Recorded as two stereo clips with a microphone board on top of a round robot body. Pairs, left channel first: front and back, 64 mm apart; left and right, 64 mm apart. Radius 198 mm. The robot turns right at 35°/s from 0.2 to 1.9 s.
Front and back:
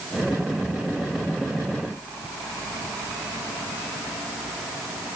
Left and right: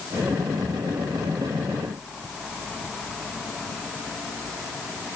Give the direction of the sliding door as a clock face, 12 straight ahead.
No sliding door in this recording.